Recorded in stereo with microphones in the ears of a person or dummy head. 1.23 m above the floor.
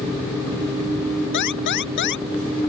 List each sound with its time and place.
1.3 s an alarm: 60° left (ahead or behind)